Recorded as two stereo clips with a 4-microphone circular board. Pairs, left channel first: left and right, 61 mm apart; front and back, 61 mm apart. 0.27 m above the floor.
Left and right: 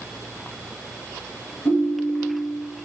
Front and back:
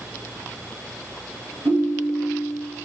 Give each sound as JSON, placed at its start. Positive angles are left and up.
{"t": 1.6, "sound": "a ringtone", "azimuth_deg": 140, "distance_m": 2.5}